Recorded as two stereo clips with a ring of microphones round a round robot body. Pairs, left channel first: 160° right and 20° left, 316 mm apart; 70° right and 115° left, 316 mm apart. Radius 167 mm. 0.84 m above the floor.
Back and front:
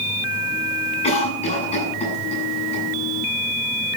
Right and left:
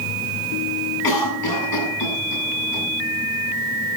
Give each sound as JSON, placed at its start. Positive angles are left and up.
{"t": 1.0, "sound": "a cough", "azimuth_deg": -85, "distance_m": 7.5}